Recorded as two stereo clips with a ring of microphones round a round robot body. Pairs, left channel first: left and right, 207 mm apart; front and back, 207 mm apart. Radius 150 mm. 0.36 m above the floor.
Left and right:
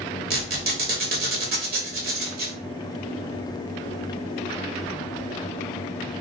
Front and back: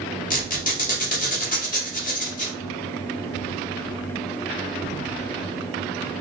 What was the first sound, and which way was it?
A squeak, 50° right.